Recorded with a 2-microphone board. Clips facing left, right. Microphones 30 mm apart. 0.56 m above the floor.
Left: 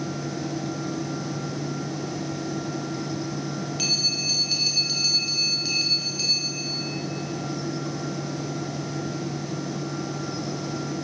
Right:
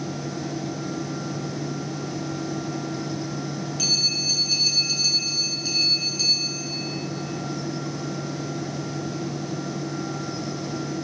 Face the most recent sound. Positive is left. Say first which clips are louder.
# right 2 dB
turn(degrees=20)  # may be behind; listen again after turning